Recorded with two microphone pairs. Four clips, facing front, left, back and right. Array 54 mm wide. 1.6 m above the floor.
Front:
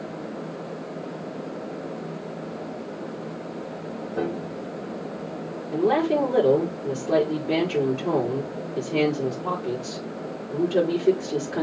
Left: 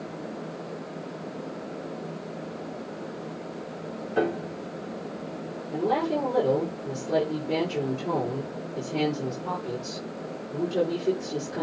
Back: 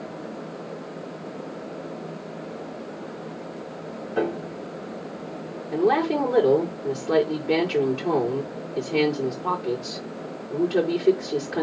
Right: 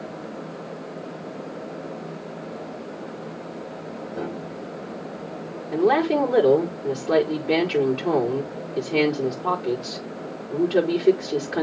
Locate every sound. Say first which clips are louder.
4.2 s a piano: left 7 dB, back 3 dB; 130° left, 2.5 m
5.7 s a woman speaking: right 6 dB, even; 110° right, 4.5 m